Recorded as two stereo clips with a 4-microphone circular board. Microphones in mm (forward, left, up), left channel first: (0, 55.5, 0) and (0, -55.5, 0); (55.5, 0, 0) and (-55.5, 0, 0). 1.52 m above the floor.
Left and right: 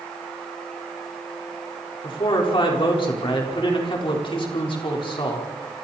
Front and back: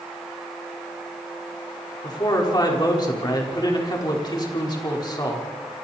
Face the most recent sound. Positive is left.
turn(degrees=50)